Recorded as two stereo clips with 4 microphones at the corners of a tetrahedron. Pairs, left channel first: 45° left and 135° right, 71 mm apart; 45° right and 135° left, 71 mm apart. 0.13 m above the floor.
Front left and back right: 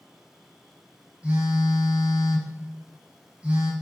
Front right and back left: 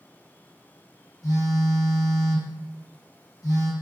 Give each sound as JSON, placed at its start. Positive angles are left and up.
{"t": 1.2, "sound": "a phone buzzing", "azimuth_deg": -65, "distance_m": 0.7}